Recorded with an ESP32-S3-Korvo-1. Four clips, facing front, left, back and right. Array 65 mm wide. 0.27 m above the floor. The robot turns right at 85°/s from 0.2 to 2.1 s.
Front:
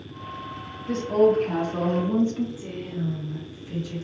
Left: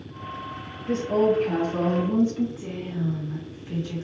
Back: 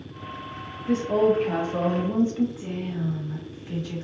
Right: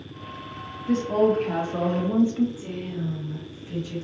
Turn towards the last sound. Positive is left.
turn(degrees=155)